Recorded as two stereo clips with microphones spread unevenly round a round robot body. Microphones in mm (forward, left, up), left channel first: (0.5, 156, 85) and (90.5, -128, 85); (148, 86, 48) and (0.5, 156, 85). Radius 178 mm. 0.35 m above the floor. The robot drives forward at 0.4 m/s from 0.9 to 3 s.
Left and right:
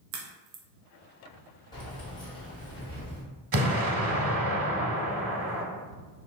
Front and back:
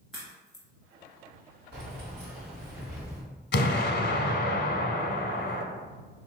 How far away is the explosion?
About 0.7 m.